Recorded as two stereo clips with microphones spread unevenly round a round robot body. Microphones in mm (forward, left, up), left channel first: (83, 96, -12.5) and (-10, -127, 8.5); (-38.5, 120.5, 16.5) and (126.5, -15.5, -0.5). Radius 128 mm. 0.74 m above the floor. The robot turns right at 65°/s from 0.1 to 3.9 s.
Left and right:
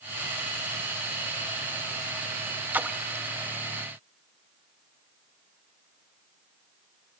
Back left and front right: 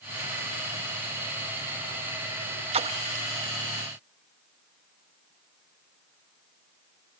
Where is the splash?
30° right, 0.7 m; by 3.3 s 5° left, 0.7 m.